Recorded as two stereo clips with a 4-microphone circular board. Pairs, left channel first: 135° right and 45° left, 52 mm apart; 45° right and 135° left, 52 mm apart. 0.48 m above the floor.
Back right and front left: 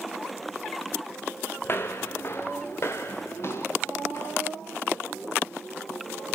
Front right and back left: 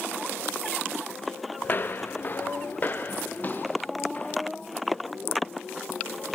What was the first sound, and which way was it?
Footsteps, 95° right.